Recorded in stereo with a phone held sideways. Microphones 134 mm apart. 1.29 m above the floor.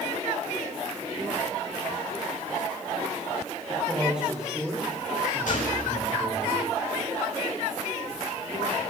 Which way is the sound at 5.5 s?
75° left (ahead or behind).